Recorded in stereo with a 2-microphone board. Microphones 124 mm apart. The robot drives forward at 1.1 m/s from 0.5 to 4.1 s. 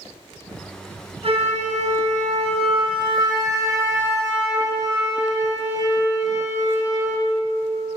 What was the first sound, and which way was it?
A flute, 50° right (ahead or behind).